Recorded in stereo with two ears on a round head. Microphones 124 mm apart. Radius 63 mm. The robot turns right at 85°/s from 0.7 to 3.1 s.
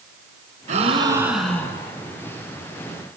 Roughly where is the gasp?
Ahead right.